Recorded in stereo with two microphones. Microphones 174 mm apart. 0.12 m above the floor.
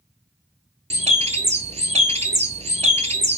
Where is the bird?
40° right (ahead or behind), 0.6 m.